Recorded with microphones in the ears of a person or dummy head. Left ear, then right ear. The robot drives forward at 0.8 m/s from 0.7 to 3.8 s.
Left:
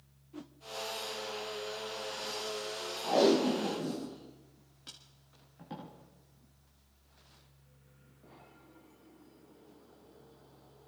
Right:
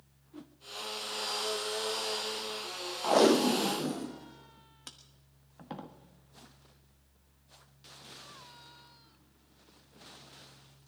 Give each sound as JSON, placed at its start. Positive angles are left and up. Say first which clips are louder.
{"t": 0.3, "sound": "a whoosh", "louder": "left 2 dB", "side_deg": 10, "distance_m": 0.6}
{"t": 3.0, "sound": "tape being pulled", "louder": "right 3 dB", "side_deg": -50, "distance_m": 1.0}